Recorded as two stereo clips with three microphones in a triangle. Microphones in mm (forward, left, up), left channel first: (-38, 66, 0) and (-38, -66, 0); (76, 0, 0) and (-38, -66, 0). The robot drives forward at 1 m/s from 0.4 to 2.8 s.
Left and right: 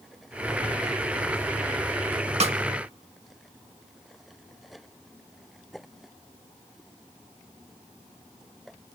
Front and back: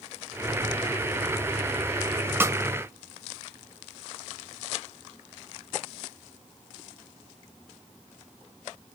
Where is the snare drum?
80° right, 0.6 m; by 2.6 s 100° right, 0.6 m.